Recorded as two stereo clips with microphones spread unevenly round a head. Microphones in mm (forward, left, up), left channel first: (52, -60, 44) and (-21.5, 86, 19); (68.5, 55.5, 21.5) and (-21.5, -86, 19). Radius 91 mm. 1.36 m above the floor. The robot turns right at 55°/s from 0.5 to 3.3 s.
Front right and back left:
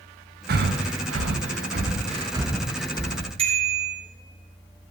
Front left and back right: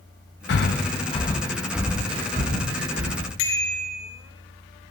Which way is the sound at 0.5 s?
85° left.